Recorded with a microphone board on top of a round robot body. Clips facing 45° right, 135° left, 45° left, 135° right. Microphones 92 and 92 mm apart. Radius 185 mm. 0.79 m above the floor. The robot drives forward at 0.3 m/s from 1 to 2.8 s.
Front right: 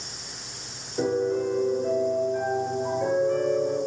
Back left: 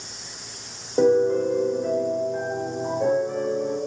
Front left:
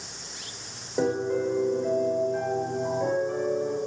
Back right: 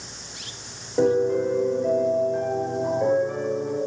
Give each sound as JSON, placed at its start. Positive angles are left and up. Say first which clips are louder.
{"t": 1.0, "sound": "a piano", "louder": "back left 6 dB, back right 5 dB", "azimuth_deg": 130, "distance_m": 1.4}